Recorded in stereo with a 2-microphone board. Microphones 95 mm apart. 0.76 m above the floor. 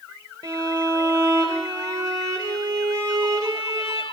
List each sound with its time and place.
0.4 s a violin: 30° right (ahead or behind), 4.5 m